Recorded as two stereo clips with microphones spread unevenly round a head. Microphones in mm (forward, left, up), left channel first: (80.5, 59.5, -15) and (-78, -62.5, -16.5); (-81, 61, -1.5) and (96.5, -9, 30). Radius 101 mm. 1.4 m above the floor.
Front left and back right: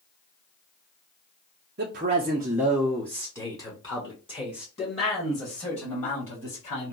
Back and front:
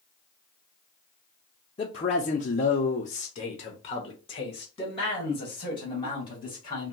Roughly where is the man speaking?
Behind.